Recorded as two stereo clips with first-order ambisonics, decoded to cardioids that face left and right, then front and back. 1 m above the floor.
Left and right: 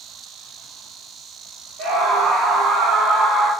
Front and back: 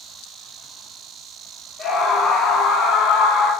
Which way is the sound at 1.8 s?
55° right.